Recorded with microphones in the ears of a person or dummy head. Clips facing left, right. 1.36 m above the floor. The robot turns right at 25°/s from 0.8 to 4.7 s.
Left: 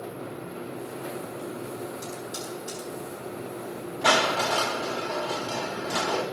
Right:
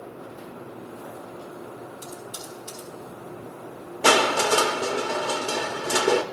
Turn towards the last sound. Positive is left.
turn(degrees=-55)  # may be behind; listen again after turning